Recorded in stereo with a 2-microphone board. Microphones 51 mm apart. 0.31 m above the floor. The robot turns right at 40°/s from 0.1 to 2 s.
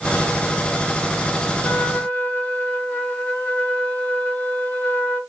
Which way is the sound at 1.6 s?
40° left (ahead or behind).